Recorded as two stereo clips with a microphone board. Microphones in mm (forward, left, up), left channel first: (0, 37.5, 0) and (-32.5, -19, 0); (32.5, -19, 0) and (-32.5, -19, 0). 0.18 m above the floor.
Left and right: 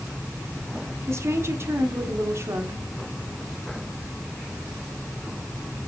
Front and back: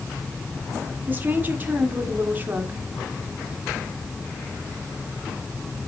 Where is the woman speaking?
135° right, 1.9 m.